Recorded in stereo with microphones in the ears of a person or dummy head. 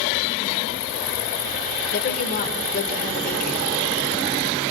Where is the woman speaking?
50° left (ahead or behind), 4.5 m.